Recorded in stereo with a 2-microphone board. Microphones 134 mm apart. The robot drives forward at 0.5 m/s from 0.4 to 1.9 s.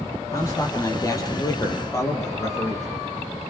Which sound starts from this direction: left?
A man speaking, at 0.3 s.